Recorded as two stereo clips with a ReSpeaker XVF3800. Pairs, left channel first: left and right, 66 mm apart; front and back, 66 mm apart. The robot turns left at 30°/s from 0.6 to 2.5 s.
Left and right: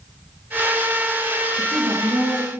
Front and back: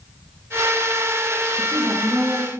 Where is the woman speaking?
115° right, 5.5 m; by 2.5 s 145° right, 5.5 m.